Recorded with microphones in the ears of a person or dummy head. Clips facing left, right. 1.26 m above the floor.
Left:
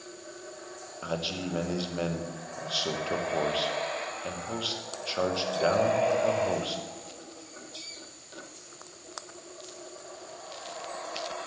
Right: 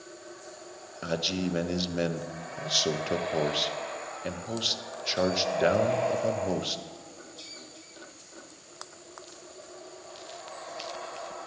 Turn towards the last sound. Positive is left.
turn(degrees=-20)  # may be behind; listen again after turning